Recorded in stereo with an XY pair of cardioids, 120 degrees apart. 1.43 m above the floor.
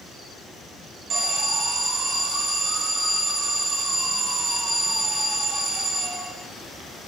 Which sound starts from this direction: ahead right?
An alarm, at 1.1 s.